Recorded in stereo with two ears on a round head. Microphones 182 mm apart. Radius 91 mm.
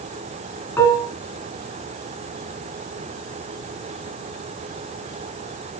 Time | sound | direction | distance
0.8 | dishes clattering | 15° left (ahead or behind) | 3.5 m